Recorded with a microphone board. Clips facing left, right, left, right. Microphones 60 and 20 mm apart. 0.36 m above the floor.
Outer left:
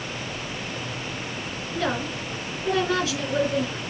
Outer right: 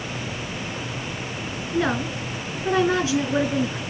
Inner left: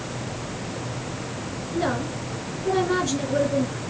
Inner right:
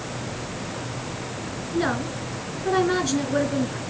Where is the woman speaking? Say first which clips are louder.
Outer right 4 dB, inner right 1 dB; 25° right (ahead or behind), 3.5 m.